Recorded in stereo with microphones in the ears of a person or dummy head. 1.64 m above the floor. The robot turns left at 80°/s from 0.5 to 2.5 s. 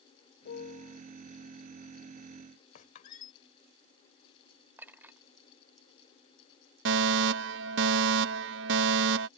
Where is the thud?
No thud in this recording.